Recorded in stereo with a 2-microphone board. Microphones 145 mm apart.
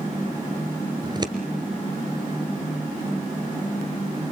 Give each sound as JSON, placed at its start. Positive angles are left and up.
{"t": 1.0, "sound": "scissors", "side_deg": -30, "distance_m": 1.9}